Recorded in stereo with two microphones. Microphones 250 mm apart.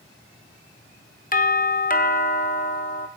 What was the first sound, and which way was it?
A doorbell, 35° left (ahead or behind).